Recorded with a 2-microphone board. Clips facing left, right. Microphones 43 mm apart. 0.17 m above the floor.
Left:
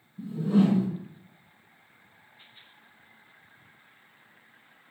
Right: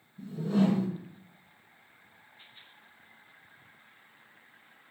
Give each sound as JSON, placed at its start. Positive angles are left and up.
{"t": 0.2, "sound": "a whoosh", "side_deg": 20, "distance_m": 1.4}